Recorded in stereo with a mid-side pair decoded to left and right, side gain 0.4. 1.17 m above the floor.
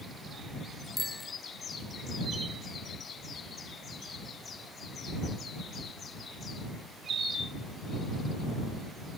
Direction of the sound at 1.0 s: 20° left.